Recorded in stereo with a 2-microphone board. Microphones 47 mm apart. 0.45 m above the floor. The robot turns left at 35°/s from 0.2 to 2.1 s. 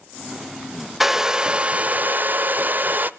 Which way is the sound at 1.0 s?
5° right.